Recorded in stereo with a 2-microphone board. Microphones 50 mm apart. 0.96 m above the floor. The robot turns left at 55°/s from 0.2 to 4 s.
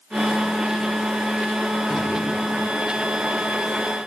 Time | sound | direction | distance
1.9 | a drawer | 10° right (ahead or behind) | 1.1 m